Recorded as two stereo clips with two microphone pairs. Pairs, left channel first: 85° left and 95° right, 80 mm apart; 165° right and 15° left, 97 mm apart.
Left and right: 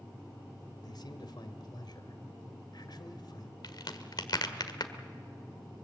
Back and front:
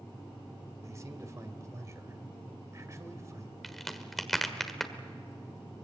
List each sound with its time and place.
0.8 s a man speaking: 65° left, 2 m
3.6 s a crack: 105° left, 1.6 m